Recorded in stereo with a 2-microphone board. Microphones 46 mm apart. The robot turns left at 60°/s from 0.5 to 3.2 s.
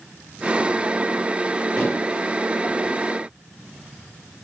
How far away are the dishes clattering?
About 6.5 m.